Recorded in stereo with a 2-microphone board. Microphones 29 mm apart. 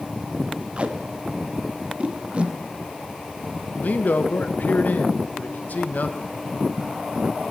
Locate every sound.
0.8 s tape being pulled: 45° right (ahead or behind), 1.0 m
3.8 s a man speaking: 70° left (ahead or behind), 1.1 m